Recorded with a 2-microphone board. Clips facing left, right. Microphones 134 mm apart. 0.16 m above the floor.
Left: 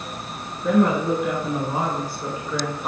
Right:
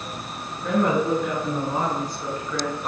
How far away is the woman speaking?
About 3 m.